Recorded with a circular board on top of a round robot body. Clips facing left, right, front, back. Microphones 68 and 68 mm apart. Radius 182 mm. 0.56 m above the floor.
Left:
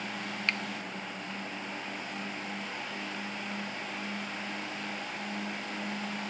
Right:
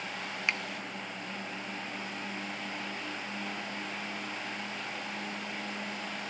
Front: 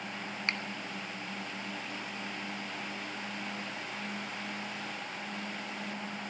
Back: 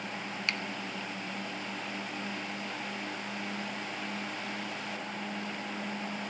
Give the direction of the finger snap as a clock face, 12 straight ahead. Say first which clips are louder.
Even, even; 1 o'clock.